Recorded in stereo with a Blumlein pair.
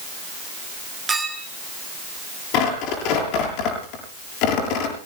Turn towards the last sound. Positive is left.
turn(degrees=40)